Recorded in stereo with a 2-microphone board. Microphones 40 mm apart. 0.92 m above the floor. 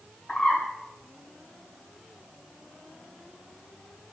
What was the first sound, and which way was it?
A bird, 30° left (ahead or behind).